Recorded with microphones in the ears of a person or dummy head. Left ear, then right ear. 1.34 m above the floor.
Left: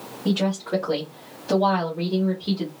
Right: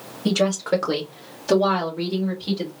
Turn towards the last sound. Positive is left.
turn(degrees=-10)  # may be behind; listen again after turning